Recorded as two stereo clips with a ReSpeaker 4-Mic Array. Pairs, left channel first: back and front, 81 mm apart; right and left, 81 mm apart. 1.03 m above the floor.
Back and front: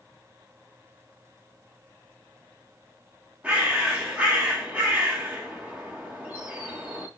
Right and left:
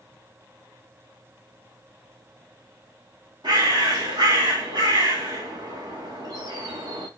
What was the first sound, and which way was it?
A bird, 70° left.